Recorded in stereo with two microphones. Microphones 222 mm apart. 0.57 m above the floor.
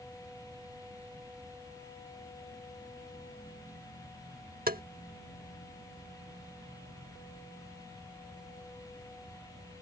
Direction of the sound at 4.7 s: 45° right (ahead or behind).